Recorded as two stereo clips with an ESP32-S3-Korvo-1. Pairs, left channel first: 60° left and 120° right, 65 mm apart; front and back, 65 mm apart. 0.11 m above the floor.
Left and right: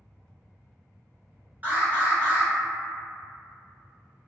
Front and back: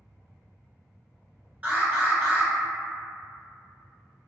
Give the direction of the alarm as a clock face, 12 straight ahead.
5 o'clock.